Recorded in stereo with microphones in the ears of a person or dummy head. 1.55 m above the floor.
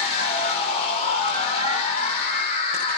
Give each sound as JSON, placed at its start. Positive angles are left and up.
{"t": 0.0, "sound": "a machine running", "side_deg": 30, "distance_m": 0.8}